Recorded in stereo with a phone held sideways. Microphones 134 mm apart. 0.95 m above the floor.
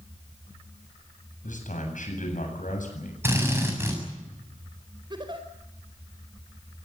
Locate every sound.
1.4 s a man speaking: 70° left (ahead or behind), 8 m
3.2 s a drill: 15° right (ahead or behind), 7 m
5.1 s a giggle: 35° right (ahead or behind), 4.5 m